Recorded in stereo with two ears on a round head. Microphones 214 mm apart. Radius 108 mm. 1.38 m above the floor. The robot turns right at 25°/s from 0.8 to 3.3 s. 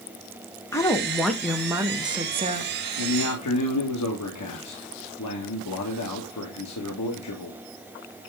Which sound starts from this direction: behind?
A woman speaking, at 0.7 s.